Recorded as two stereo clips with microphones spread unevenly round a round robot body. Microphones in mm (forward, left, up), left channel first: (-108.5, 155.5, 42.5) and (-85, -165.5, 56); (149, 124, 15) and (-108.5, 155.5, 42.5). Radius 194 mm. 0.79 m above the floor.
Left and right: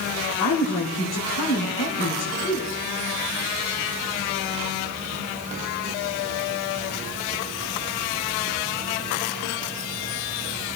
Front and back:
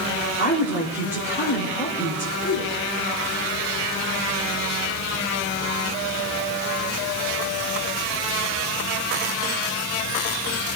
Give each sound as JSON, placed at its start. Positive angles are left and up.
{"t": 0.4, "sound": "a woman speaking", "azimuth_deg": 40, "distance_m": 3.5}